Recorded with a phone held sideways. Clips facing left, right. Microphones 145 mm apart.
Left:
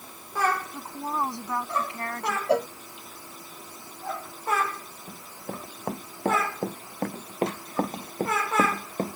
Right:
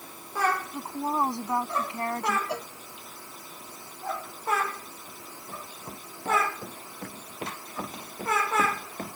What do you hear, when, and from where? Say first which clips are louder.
0.7 s a woman speaking: right 2 dB; 20° right (ahead or behind); by 2.4 s 25° right (ahead or behind)
2.5 s a cowbell: left 11 dB; 60° left (ahead or behind)
5.1 s running footsteps: left 8 dB; 80° left; by 9.2 s 35° left (ahead or behind)